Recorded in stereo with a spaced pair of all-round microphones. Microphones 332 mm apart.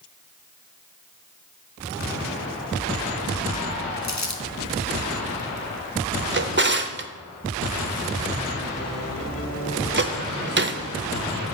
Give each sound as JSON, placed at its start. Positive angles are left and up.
{"t": 4.0, "sound": "crumpling", "side_deg": 55, "distance_m": 0.8}
{"t": 6.3, "sound": "a drawer", "side_deg": -35, "distance_m": 0.6}